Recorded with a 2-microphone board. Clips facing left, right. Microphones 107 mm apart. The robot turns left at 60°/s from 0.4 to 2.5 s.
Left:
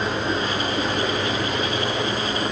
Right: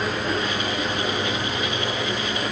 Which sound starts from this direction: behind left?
Running water, at 0.0 s.